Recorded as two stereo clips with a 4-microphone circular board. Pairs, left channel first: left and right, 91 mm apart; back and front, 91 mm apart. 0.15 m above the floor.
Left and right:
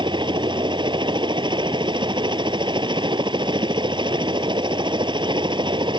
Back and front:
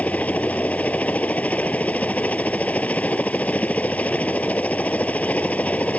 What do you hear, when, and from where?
0.0 s a helicopter: 105° right